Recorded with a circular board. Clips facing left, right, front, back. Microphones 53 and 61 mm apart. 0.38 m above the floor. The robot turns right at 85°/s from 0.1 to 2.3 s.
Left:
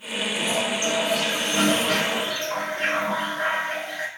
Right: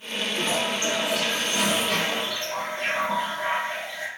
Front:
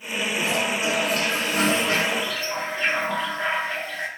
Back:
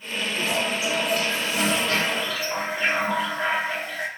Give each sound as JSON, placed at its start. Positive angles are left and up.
{"t": 0.4, "sound": "a toilet flushing", "azimuth_deg": -70, "distance_m": 0.9}